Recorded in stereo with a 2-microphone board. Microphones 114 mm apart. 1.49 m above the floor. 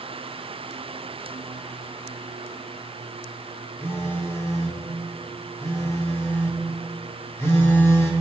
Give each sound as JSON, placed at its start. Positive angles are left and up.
{"t": 3.8, "sound": "a phone buzzing", "side_deg": 20, "distance_m": 1.2}